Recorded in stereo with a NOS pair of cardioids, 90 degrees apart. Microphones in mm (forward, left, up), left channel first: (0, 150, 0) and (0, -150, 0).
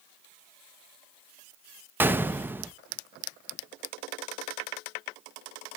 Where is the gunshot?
5° right, 0.7 m.